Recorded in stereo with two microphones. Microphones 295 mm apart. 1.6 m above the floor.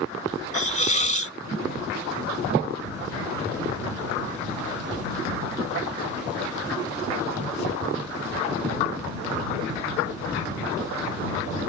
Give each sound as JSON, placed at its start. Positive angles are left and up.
{"t": 0.5, "sound": "a hiss", "side_deg": 25}